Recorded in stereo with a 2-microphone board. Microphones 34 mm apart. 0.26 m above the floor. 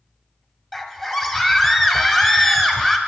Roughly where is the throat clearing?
No throat clearing in this recording.